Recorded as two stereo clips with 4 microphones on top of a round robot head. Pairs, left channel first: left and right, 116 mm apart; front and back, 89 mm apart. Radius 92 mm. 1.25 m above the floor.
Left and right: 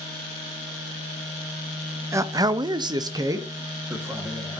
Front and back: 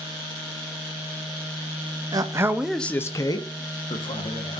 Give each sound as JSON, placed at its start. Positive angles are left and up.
{"t": 2.1, "sound": "a man speaking", "azimuth_deg": -150, "distance_m": 0.7}